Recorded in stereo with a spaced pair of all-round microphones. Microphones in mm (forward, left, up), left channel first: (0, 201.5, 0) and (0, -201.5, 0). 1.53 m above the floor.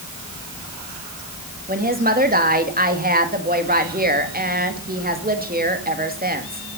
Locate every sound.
1.7 s a woman speaking: 20° right (ahead or behind), 2.5 m